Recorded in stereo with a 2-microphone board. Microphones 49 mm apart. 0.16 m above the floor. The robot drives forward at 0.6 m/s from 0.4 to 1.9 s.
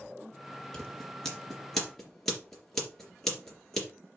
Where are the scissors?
10° left (ahead or behind), 2.5 m; by 3.9 s 5° left (ahead or behind), 3 m.